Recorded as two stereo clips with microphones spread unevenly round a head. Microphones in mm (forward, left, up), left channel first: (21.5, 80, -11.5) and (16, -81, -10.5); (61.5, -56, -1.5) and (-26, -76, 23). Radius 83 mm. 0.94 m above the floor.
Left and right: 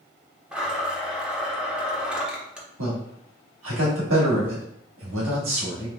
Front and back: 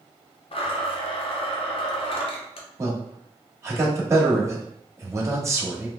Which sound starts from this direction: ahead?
A blender, at 0.5 s.